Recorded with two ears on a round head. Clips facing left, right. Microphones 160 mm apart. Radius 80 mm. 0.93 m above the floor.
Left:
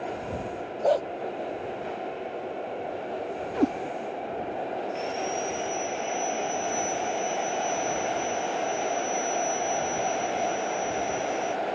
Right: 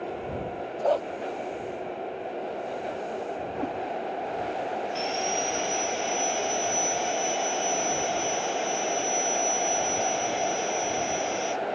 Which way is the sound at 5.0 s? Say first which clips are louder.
Right 1 dB; 50° right (ahead or behind).